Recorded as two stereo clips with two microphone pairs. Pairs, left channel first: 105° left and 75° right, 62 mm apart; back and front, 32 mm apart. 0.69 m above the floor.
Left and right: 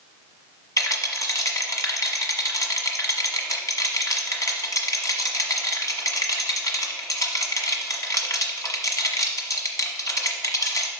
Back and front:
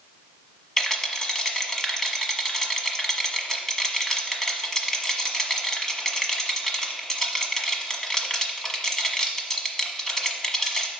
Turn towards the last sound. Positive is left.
turn(degrees=105)